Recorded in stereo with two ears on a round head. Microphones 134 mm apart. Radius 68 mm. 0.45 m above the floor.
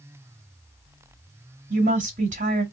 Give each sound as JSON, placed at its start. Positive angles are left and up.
{"t": 1.7, "sound": "a woman speaking", "side_deg": -50, "distance_m": 1.7}